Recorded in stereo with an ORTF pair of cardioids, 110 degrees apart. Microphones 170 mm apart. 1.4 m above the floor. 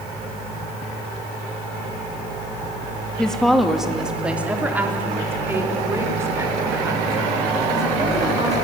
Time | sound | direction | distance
3.2 | a woman speaking | 5° left | 2.5 m